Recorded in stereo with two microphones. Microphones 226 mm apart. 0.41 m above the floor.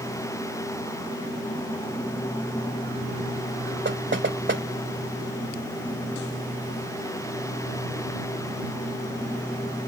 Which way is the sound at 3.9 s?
55° right (ahead or behind).